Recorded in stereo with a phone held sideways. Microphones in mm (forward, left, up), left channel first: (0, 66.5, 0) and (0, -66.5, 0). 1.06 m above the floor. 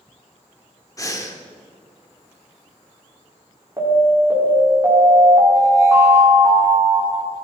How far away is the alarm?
About 5 m.